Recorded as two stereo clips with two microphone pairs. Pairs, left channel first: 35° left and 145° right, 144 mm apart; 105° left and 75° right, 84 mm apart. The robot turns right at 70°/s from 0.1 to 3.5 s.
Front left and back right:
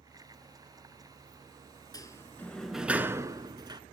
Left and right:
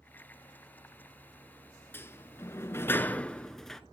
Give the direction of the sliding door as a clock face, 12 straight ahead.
9 o'clock.